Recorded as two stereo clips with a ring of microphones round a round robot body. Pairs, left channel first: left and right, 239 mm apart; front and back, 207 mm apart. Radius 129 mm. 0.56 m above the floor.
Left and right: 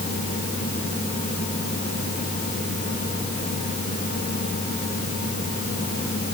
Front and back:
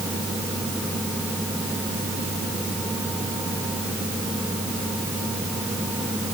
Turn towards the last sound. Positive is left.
No sound to turn to.